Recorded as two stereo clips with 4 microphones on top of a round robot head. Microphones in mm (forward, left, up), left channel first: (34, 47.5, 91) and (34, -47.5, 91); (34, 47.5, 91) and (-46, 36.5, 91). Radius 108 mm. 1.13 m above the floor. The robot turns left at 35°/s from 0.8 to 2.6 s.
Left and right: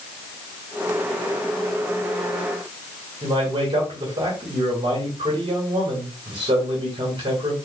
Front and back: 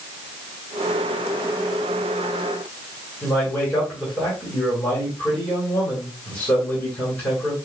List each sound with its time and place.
3.2 s a man speaking: 65° right, 2 m